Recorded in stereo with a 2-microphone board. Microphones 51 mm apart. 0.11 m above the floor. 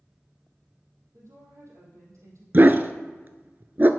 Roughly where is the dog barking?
Right.